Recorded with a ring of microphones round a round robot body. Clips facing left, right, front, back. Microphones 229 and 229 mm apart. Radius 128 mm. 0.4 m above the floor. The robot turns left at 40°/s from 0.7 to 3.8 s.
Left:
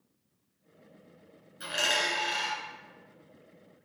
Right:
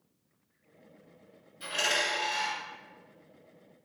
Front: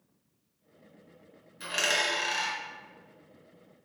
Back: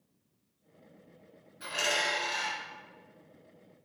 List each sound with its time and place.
1.6 s a dropped coin: 55° left, 1.9 m; by 2.6 s 15° left, 1.9 m